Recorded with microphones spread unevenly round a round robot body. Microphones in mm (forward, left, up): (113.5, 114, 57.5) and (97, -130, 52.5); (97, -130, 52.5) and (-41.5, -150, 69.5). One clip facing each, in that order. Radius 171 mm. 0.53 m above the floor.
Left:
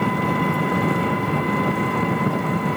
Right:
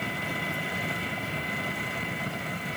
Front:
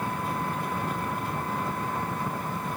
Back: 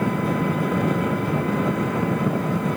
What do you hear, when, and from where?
0.0 s an engine running: 140° left